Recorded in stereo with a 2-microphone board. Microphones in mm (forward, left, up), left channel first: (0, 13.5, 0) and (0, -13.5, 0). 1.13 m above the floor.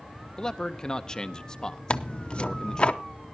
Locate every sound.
0.4 s a man speaking: 25° left (ahead or behind), 0.7 m
1.9 s tearing paper: 40° left (ahead or behind), 0.6 m